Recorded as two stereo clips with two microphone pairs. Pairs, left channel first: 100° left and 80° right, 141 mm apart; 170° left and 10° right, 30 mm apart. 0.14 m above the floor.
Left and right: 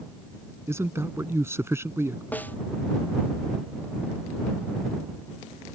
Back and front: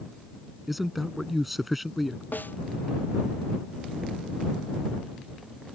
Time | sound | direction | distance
0.7 | a man speaking | 90° right | ?
2.3 | a snare drum | straight behind | ?